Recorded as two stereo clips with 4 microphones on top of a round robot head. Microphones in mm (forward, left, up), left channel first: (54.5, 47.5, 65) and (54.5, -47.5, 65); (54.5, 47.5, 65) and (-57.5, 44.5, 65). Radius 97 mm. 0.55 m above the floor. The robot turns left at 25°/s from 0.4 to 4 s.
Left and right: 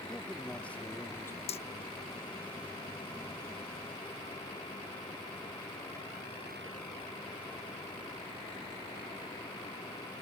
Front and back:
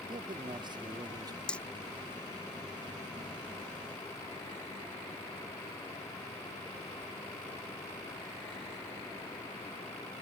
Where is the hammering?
85° left; by 1.6 s 80° left.